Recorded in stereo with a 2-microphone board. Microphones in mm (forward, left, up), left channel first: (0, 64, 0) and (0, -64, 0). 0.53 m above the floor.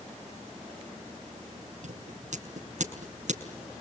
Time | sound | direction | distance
1.8 | scissors | 70° right (ahead or behind) | 5.5 m